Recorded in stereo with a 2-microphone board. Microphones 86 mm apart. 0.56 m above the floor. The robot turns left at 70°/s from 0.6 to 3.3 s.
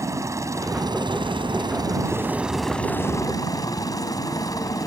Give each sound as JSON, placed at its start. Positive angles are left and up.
{"t": 0.0, "sound": "a helicopter", "azimuth_deg": -40}